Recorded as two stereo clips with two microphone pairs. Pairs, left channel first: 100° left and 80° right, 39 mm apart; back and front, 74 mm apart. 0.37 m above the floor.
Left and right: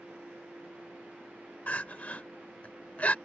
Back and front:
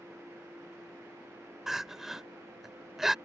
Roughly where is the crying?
Left.